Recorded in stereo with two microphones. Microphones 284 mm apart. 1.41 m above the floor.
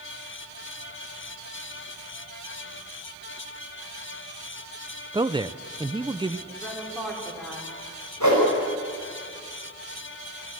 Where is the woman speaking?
Centre (ahead or behind), 5 m.